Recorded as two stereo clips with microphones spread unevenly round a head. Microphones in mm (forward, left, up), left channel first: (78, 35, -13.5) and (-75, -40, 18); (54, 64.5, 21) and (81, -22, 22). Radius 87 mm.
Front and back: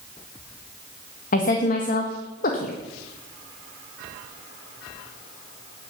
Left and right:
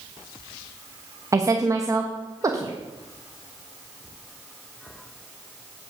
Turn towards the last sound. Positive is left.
turn(degrees=-20)